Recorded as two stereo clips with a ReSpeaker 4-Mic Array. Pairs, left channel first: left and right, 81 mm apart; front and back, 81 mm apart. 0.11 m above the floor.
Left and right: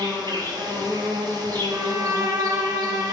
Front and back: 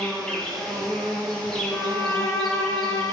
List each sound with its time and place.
0.0 s an insect: 85° right, 1.9 m
1.7 s a violin: 45° right, 1.0 m